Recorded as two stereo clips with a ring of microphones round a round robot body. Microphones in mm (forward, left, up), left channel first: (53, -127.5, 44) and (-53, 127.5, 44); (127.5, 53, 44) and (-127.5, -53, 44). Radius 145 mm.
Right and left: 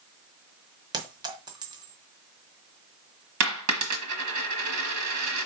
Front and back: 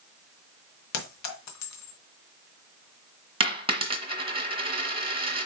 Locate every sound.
0.9 s a clink: 40° left, 1.6 m
3.4 s a dropped coin: 130° left, 1.4 m